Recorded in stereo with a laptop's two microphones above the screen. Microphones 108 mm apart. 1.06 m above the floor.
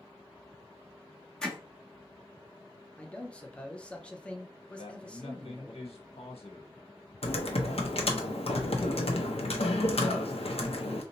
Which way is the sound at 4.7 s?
75° left (ahead or behind).